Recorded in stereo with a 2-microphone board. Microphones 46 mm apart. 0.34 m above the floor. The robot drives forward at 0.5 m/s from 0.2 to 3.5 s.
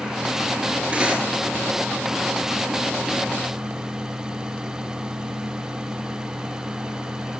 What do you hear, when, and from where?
0.9 s cutlery clinking: 25° right (ahead or behind), 4 m